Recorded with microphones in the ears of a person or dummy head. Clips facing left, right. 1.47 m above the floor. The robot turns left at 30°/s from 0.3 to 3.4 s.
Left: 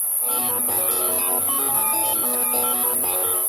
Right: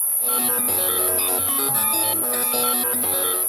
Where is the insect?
175° left, 1.6 m; by 3.5 s 85° left, 1.6 m.